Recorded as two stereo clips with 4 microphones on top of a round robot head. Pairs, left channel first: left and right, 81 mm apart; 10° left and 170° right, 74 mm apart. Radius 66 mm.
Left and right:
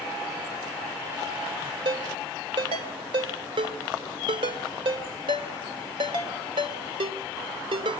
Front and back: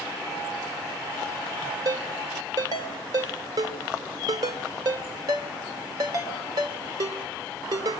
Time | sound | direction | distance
1.9 | a ringtone | 120° right | 1.8 m